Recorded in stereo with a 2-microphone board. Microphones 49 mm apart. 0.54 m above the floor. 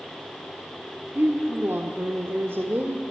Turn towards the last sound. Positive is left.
turn(degrees=-50)  # may be behind; listen again after turning